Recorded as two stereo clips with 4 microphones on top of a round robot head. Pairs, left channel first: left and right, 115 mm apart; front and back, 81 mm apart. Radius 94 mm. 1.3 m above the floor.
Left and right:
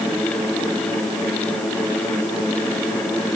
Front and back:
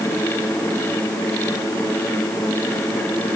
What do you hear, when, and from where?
Only background noise.